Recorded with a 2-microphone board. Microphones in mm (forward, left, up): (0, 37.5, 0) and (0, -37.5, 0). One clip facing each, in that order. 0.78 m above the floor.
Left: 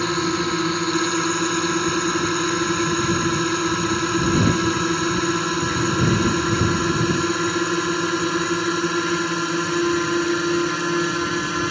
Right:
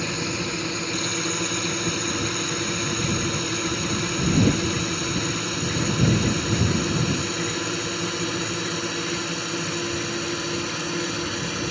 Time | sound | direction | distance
0.0 | a drone | 60° left (ahead or behind) | ?